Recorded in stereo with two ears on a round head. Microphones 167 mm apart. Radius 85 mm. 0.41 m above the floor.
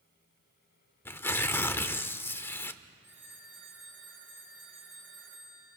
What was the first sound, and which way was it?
Tearing paper, 15° left (ahead or behind).